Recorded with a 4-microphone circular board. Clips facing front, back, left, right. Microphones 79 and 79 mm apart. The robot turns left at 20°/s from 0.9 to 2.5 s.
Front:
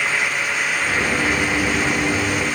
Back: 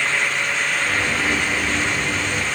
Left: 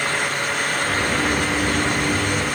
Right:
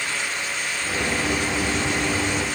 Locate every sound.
Only background noise.